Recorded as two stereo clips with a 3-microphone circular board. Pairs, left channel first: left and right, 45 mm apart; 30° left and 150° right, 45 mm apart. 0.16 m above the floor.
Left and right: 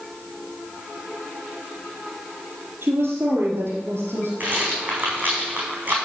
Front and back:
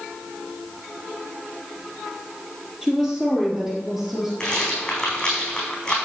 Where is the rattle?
40° right, 4 m.